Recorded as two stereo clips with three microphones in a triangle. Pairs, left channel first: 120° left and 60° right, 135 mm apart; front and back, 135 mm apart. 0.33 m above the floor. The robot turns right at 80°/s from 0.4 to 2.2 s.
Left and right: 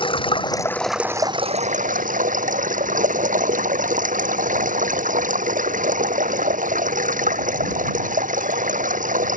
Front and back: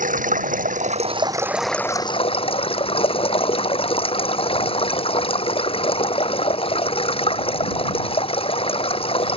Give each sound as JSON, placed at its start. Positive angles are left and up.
{"t": 0.0, "sound": "running water", "azimuth_deg": 170}